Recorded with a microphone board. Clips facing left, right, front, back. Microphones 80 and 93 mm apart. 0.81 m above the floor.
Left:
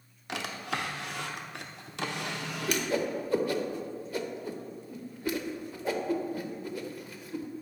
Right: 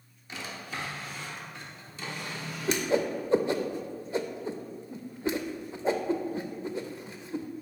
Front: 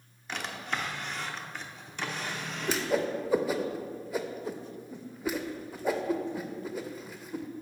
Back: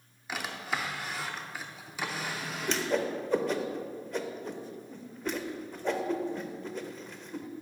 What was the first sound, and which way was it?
A drawer, 95° left.